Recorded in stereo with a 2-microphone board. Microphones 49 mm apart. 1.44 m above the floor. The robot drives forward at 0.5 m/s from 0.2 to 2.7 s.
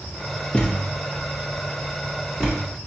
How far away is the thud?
About 0.8 m.